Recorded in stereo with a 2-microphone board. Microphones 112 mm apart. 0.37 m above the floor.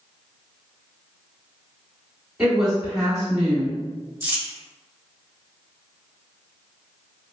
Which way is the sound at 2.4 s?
5° right (ahead or behind).